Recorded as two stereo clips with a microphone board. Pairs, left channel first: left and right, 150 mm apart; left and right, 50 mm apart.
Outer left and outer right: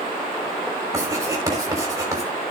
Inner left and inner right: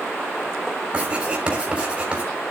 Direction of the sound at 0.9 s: 25° right (ahead or behind).